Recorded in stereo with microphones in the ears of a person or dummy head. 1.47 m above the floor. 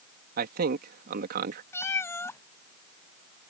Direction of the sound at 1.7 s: 15° left (ahead or behind).